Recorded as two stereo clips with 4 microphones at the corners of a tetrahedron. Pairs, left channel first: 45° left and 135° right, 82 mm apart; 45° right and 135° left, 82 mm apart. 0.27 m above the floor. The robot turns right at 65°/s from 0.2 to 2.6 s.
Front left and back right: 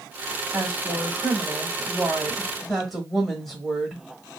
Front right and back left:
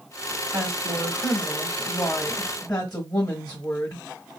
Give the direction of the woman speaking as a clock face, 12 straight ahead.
6 o'clock.